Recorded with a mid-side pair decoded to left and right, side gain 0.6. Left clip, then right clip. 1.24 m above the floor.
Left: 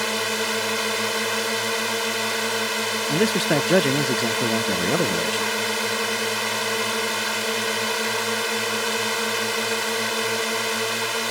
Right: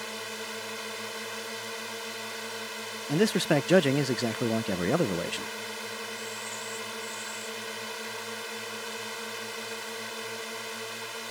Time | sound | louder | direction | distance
0.0 | a drone | left 13 dB | 55° left | ?
3.1 | a man speaking | left 3 dB | 10° left | ?